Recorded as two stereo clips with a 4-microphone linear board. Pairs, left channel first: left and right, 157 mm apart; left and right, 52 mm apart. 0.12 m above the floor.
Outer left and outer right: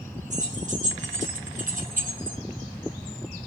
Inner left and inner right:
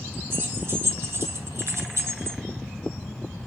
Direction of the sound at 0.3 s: 45° right (ahead or behind).